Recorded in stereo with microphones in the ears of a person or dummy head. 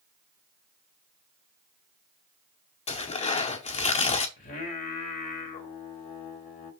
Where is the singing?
25° left (ahead or behind), 1.4 m.